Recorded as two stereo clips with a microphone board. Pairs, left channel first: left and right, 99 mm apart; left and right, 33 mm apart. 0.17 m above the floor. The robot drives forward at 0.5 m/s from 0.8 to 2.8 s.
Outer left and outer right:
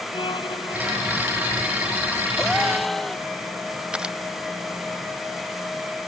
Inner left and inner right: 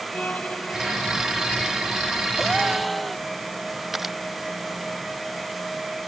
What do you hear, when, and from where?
0.1 s a violin: 55° left (ahead or behind); by 2.3 s 60° left (ahead or behind)
2.4 s a gasp: centre (ahead or behind)
3.9 s a camera shutter: 10° right (ahead or behind)